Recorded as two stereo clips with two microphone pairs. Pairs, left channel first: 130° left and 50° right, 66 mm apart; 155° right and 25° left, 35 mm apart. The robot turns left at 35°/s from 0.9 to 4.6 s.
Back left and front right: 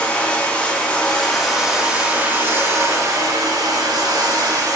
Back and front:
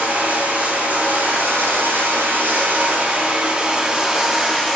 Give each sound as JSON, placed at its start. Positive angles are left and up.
{"t": 0.0, "sound": "running water", "azimuth_deg": 65, "distance_m": 2.0}